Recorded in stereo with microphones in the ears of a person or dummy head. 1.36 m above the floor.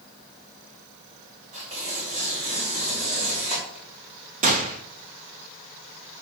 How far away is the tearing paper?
About 5.5 m.